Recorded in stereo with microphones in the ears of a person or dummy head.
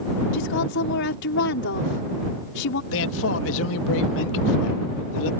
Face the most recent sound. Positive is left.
turn(degrees=70)  # may be behind; listen again after turning